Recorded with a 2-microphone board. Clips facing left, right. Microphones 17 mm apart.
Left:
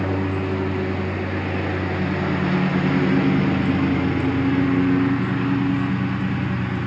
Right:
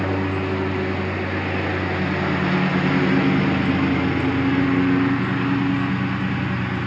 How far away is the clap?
No clap in this recording.